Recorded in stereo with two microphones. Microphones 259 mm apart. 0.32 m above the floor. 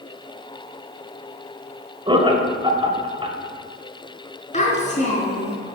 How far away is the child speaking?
About 2.5 m.